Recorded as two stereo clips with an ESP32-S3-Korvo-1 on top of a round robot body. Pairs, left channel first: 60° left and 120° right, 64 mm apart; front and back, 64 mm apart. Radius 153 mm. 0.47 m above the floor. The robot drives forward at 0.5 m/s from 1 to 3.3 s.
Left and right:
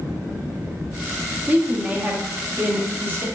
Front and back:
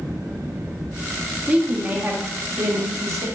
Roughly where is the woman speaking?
Behind right.